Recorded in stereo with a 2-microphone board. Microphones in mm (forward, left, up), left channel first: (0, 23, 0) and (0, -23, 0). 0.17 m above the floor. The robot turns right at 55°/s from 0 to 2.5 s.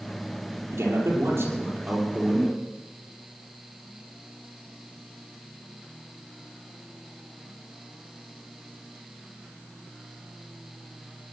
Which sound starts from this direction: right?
A man speaking, at 0.7 s.